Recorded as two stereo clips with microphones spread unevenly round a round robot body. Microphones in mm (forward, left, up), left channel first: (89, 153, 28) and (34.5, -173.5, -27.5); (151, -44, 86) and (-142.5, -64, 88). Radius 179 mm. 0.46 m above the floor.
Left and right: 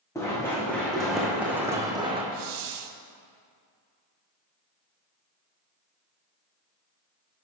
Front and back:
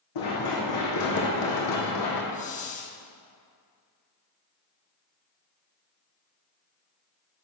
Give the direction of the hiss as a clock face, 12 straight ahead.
2 o'clock.